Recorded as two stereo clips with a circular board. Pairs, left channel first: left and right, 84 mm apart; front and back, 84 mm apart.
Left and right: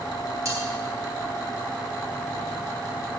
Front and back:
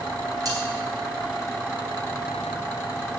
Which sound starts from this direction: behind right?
Cutlery clinking, at 0.5 s.